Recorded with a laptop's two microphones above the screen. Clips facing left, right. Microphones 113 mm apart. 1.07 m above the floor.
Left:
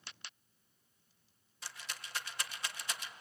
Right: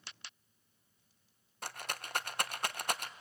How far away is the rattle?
About 0.6 m.